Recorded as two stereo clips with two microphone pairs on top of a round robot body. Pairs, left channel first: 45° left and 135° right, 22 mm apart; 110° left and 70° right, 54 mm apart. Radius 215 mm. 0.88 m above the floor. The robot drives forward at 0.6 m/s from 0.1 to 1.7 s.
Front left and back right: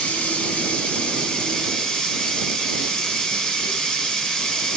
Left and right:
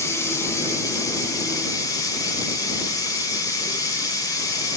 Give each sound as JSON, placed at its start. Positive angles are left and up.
{"t": 0.0, "sound": "running water", "azimuth_deg": 70, "distance_m": 1.8}